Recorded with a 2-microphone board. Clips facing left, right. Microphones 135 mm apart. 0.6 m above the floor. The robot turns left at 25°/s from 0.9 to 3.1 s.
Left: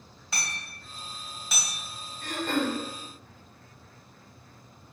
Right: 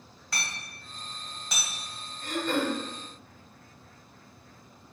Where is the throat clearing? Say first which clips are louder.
Even; 65° left (ahead or behind), 1.2 m; by 2.8 s 50° left (ahead or behind), 1.2 m.